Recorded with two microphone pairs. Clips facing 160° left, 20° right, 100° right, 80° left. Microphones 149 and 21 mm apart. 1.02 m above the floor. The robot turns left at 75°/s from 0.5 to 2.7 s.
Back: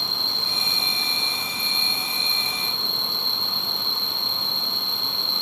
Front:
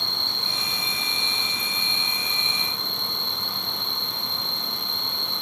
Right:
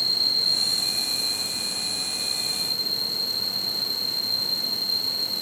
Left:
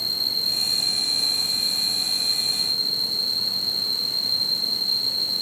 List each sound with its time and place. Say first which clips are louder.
0.0 s an insect: back 1 dB, right 2 dB; 170° right, 0.9 m; by 5.4 s 25° left, 0.9 m